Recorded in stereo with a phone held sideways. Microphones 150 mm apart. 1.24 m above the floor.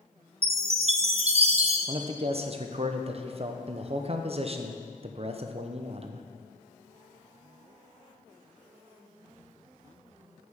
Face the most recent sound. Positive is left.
turn(degrees=-45)  # may be behind; listen again after turning